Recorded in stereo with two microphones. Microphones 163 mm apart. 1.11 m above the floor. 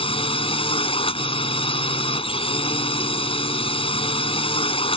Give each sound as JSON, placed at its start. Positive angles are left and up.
{"t": 0.0, "sound": "a drone", "side_deg": 35}